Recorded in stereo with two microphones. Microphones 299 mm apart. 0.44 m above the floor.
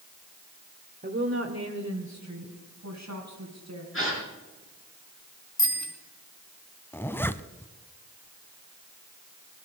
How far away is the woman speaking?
About 1.2 m.